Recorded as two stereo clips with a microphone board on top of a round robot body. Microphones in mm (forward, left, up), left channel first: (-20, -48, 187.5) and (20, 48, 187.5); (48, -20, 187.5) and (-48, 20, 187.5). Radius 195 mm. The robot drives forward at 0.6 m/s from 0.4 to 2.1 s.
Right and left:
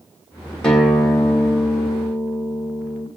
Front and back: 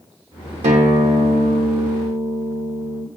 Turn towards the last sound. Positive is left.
turn(degrees=170)